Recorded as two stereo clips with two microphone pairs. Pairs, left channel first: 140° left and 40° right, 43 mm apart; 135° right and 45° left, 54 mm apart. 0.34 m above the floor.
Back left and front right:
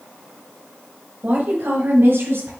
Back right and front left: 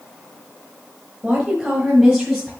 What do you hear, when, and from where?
1.2 s a woman speaking: 20° right, 1.2 m; by 2.5 s 50° right, 2 m